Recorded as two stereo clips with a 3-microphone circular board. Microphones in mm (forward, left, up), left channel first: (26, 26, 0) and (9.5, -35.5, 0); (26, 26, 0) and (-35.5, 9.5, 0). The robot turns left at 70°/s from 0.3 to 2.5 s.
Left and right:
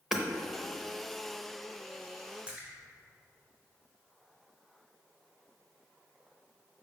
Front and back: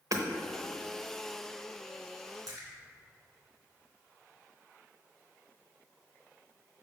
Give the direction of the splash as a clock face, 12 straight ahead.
6 o'clock.